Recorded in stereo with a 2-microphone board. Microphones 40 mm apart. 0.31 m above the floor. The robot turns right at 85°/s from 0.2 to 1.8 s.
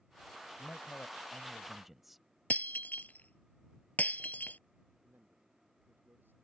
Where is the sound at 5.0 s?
60° right (ahead or behind).